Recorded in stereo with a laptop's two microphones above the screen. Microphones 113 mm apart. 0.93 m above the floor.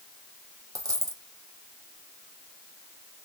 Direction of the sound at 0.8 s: 30° right (ahead or behind).